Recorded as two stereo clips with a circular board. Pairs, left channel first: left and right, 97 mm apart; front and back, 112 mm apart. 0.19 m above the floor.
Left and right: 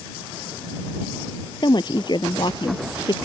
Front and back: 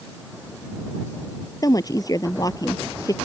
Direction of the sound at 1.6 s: 55° left.